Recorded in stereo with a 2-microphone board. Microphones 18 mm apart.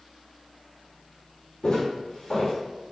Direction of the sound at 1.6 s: 55° left (ahead or behind).